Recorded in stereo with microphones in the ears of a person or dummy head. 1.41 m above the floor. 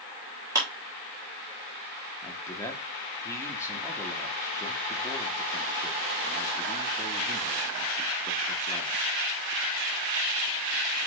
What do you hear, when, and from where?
0.6 s a clap: 15° right (ahead or behind), 1.3 m
2.2 s a man speaking: 15° left (ahead or behind), 1.3 m